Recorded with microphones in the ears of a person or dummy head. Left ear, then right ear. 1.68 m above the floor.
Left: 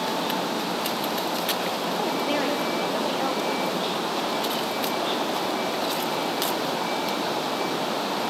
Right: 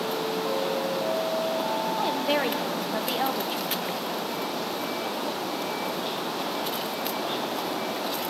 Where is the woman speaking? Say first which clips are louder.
Even; 30° right (ahead or behind), 0.9 m.